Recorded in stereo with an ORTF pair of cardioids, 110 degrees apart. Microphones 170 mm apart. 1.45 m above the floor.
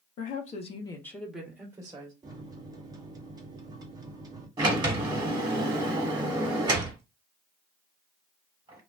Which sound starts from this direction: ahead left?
A woman speaking, at 0.2 s.